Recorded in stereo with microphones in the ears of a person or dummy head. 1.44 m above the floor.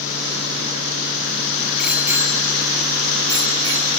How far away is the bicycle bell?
About 2 m.